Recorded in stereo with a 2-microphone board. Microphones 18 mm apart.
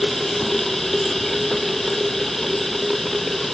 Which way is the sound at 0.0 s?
10° left (ahead or behind).